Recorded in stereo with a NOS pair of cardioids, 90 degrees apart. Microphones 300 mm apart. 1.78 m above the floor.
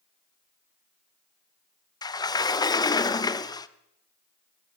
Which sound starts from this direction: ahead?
A sliding door, at 2.0 s.